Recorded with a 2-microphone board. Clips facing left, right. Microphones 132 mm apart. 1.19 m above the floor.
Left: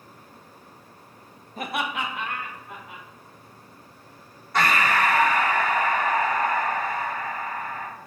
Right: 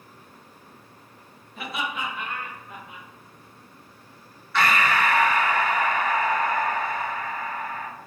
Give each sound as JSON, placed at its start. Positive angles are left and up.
{"t": 1.6, "sound": "laughter", "side_deg": 35, "distance_m": 0.5}
{"t": 4.5, "sound": "breathing", "side_deg": 40, "distance_m": 0.9}